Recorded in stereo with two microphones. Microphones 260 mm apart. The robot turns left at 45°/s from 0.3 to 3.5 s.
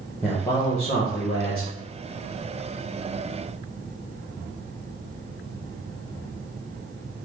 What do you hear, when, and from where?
0.2 s a man speaking: straight behind, 0.7 m; by 1.7 s 115° left, 0.7 m